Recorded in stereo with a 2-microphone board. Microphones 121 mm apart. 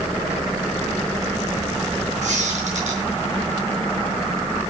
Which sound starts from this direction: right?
A squeak, at 2.2 s.